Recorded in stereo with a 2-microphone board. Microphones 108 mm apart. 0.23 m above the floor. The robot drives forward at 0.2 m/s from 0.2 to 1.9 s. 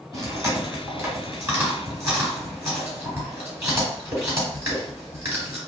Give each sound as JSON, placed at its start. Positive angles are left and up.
{"t": 0.1, "sound": "chewing", "side_deg": -25, "distance_m": 1.5}